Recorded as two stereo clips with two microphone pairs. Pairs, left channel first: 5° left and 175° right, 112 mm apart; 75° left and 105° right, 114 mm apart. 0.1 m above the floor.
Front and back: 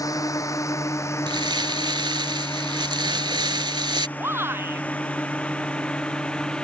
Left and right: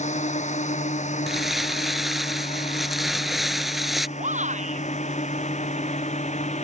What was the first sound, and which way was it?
A drone, 70° left.